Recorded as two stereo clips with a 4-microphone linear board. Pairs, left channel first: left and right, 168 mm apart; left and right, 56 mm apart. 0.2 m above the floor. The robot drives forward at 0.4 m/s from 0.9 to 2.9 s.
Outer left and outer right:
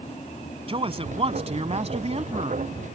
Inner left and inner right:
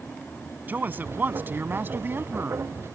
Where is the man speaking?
35° right (ahead or behind); by 2.6 s 40° right (ahead or behind).